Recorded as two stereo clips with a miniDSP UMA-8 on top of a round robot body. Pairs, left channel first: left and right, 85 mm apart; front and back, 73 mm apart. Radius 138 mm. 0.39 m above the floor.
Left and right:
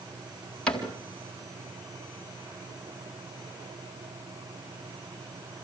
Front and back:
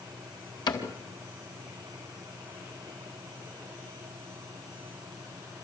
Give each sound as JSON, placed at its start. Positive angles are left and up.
{"t": 0.7, "sound": "a cupboard door", "azimuth_deg": 10, "distance_m": 4.0}